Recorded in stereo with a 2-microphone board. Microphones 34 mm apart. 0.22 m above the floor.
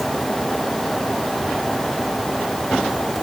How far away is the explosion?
No explosion in this recording.